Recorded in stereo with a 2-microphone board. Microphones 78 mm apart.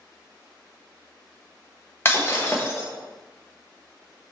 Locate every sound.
2.0 s breaking glass: 30° left (ahead or behind), 1.3 m